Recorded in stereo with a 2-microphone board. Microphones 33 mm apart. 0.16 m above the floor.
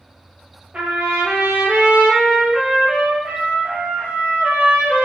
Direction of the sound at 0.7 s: 40° right (ahead or behind).